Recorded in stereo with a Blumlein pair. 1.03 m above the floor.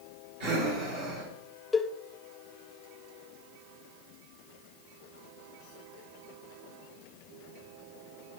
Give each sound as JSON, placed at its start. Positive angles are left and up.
{"t": 0.4, "sound": "breathing", "azimuth_deg": -50, "distance_m": 4.5}
{"t": 1.7, "sound": "a cowbell", "azimuth_deg": 5, "distance_m": 0.8}